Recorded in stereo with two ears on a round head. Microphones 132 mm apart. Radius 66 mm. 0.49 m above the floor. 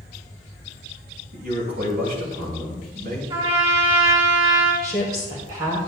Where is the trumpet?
30° right (ahead or behind), 2.5 m.